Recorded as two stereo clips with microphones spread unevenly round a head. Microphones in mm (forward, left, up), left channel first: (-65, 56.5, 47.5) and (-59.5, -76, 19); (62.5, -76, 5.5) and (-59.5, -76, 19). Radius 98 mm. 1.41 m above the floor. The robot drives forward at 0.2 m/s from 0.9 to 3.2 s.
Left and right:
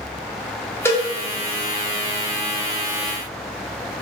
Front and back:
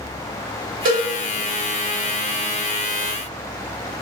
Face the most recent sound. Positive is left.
turn(degrees=170)